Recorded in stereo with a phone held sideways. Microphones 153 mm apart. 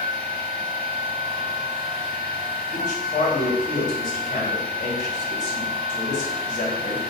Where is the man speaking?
50° left (ahead or behind), 1.1 m.